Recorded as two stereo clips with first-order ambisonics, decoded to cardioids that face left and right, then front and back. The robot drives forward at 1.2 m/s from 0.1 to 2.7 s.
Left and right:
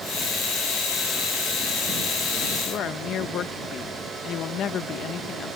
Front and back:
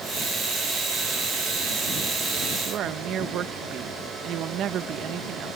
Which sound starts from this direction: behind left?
A woman speaking, at 2.6 s.